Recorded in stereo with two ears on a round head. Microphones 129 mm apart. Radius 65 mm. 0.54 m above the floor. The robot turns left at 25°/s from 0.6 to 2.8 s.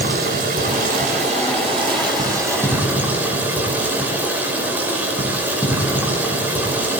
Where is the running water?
115° right, 6 m; by 7.0 s 170° right, 6 m.